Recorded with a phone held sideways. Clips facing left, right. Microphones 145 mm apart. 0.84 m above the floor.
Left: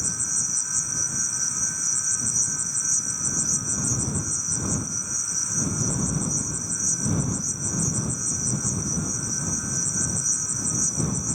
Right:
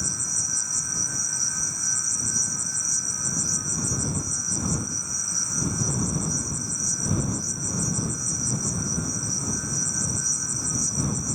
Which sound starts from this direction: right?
An insect, at 0.0 s.